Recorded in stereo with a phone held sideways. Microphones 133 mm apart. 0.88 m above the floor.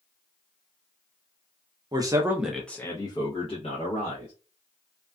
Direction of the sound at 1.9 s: 30° right (ahead or behind).